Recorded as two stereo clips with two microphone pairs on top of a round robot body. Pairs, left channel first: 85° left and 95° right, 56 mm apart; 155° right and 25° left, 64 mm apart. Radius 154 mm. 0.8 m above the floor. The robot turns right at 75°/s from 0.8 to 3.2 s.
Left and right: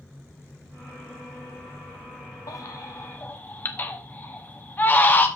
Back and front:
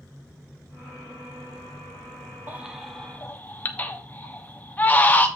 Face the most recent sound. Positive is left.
turn(degrees=140)